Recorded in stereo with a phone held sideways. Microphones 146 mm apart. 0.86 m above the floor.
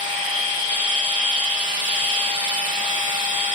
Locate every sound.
0.0 s a machine running: 35° right (ahead or behind), 1.4 m